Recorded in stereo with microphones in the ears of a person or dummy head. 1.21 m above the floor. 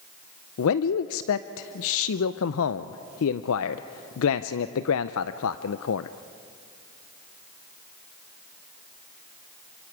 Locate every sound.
0.6 s a man speaking: 75° left (ahead or behind), 0.6 m